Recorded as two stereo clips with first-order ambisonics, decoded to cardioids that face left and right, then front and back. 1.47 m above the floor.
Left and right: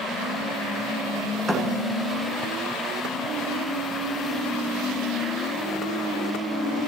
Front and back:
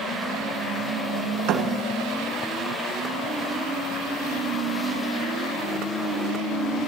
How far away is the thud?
About 2.5 m.